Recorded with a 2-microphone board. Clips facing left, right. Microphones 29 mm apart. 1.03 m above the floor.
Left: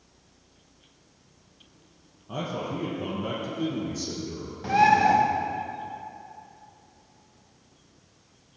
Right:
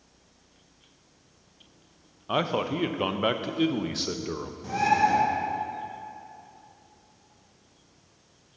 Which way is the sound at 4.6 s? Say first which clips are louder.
Left 4 dB; 35° left (ahead or behind).